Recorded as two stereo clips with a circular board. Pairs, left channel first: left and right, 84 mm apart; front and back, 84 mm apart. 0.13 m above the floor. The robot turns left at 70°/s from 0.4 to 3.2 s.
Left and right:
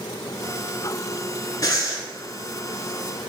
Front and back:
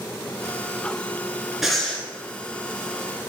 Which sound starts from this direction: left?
Breathing, at 1.6 s.